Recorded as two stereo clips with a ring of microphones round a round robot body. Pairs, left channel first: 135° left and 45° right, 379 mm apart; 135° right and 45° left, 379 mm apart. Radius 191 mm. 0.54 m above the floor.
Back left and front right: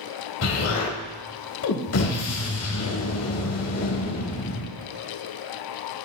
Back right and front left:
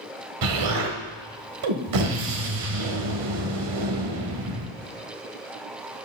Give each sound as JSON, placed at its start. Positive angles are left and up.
{"t": 0.4, "sound": "an explosion", "azimuth_deg": 85, "distance_m": 1.7}